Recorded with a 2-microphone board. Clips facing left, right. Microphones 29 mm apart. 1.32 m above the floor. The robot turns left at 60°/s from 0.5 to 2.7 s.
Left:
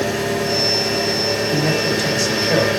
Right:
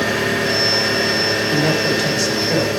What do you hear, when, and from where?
0.0 s an engine running: 65° right, 5 m; by 2.8 s 160° left, 5 m
1.5 s a man speaking: 140° right, 4.5 m; by 2.7 s 150° left, 4.5 m